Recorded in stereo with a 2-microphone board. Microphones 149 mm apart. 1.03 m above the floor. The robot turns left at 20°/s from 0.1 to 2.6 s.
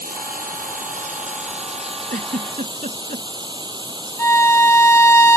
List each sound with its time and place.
0.0 s running water: 100° right; by 5.4 s 150° right
2.1 s a giggle: 70° right (ahead or behind); by 3.2 s 65° right (ahead or behind)
4.2 s a violin: 15° left (ahead or behind)